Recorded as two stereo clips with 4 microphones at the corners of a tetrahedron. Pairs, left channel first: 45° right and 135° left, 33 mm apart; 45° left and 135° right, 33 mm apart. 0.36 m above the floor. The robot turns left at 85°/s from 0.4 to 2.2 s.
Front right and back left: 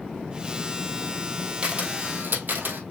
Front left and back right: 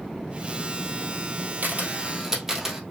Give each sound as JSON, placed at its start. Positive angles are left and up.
{"t": 1.6, "sound": "a camera shutter", "azimuth_deg": -165, "distance_m": 1.8}